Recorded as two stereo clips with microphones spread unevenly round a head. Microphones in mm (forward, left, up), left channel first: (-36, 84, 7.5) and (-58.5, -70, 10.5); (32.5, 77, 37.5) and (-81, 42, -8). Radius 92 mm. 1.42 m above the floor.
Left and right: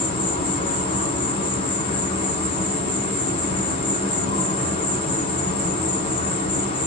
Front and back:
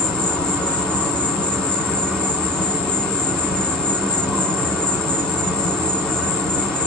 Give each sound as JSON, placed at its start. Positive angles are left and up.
{"t": 0.0, "sound": "an insect", "azimuth_deg": 50, "distance_m": 1.5}